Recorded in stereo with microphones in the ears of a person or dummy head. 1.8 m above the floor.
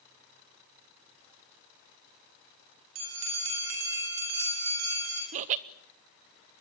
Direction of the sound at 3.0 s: 80° right.